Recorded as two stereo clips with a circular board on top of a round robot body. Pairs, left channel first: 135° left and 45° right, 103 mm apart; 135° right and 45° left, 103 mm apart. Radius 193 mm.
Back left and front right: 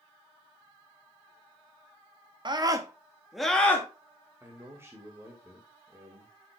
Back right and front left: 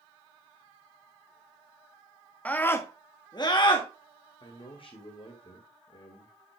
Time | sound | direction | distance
2.5 | a scream | 65° right | 2.0 m
4.4 | a man speaking | 110° right | 2 m